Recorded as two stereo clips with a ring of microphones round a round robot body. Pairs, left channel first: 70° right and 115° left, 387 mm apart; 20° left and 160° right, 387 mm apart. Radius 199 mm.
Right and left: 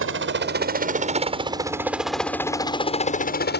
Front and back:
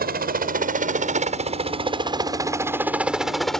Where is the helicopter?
150° left; by 3.6 s 65° right.